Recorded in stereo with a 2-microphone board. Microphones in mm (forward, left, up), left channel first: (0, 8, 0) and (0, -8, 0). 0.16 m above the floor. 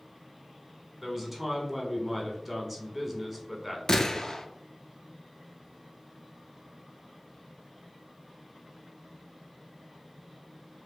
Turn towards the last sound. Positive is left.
turn(degrees=35)  # may be behind; listen again after turning